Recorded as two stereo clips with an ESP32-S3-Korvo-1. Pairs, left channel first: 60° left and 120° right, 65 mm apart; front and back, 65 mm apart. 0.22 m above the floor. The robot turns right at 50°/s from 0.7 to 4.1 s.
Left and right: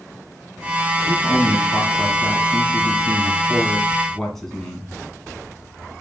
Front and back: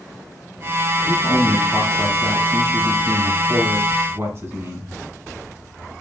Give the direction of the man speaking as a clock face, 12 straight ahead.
12 o'clock.